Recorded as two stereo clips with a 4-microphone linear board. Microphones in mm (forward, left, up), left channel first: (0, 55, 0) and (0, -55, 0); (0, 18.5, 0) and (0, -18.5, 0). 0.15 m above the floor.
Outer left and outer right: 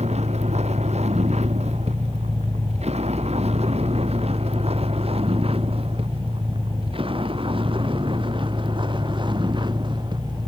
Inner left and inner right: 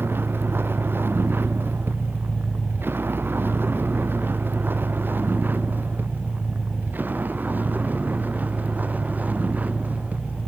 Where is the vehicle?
85° right; by 10.5 s 45° right (ahead or behind).